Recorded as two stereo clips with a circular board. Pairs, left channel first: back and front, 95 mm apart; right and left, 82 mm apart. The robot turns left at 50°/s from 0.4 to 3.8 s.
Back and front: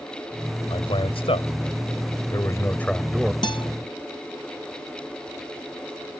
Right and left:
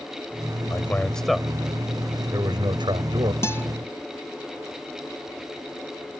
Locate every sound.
0.7 s a man speaking: 150° right; by 3.3 s 80° left
3.4 s a guitar: 145° right; by 3.7 s 155° right